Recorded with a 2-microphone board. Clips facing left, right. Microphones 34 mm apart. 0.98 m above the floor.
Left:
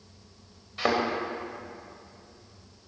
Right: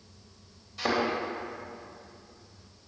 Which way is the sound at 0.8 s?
35° left (ahead or behind).